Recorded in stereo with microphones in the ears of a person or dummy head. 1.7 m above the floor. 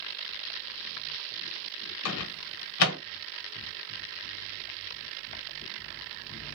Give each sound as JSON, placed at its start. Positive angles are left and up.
{"t": 2.0, "sound": "a microwave", "side_deg": 75, "distance_m": 0.9}